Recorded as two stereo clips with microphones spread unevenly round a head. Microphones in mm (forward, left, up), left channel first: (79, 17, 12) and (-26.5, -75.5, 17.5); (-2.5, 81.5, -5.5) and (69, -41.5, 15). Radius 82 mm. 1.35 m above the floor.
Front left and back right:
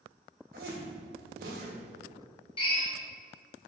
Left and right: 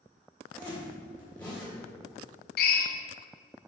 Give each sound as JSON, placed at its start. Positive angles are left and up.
{"t": 0.5, "sound": "a zipper", "azimuth_deg": -155, "distance_m": 1.6}
{"t": 2.6, "sound": "a drill", "azimuth_deg": 105, "distance_m": 0.7}